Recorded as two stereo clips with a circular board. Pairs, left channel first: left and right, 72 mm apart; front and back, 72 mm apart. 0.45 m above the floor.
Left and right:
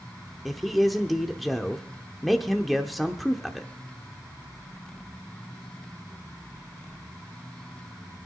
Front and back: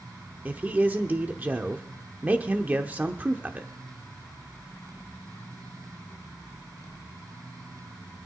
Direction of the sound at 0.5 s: Straight behind.